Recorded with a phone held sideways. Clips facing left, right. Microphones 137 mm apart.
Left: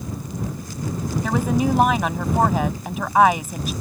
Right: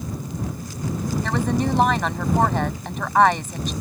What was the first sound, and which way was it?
A woman speaking, 5° left (ahead or behind).